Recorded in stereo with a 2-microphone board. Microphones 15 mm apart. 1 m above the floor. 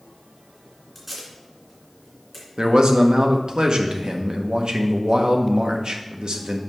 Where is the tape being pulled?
15° right (ahead or behind), 2.5 m.